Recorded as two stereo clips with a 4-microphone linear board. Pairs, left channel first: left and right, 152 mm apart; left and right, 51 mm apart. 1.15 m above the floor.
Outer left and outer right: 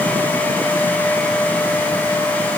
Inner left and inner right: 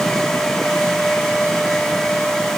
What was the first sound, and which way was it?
Only background noise.